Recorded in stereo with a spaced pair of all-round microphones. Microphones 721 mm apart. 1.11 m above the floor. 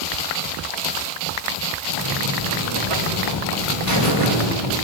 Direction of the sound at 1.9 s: 45° right (ahead or behind).